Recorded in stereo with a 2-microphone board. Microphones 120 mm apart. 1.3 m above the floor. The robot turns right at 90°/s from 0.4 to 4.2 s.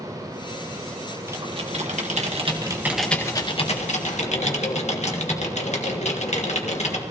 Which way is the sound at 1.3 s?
155° right.